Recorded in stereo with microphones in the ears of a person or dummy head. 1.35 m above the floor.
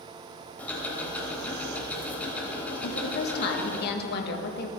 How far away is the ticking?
About 3.5 m.